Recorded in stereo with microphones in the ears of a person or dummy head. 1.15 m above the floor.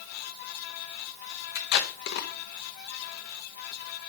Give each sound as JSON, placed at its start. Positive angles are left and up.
{"t": 1.6, "sound": "tape being pulled", "side_deg": 60, "distance_m": 1.0}